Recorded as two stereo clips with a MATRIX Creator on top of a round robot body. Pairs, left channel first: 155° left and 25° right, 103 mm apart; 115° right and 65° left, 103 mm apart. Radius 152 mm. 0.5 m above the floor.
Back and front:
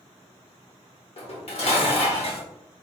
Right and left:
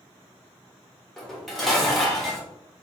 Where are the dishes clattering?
160° left, 1.4 m.